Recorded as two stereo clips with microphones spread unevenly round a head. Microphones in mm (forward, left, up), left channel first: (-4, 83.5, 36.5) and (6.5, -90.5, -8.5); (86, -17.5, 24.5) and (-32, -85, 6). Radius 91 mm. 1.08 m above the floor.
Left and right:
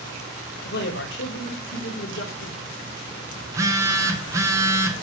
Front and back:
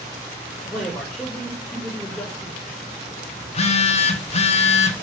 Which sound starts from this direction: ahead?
A phone buzzing, at 3.4 s.